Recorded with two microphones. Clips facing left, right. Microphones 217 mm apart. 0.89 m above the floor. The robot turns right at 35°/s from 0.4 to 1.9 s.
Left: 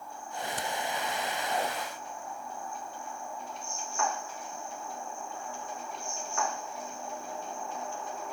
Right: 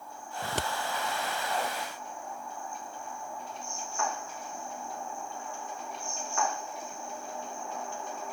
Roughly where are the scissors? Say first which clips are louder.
Right 2 dB; right.